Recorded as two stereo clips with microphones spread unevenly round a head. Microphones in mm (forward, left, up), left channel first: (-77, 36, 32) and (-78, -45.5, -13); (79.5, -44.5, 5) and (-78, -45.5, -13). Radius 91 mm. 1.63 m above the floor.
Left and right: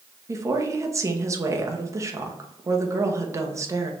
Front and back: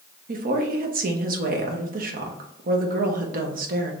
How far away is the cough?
No cough in this recording.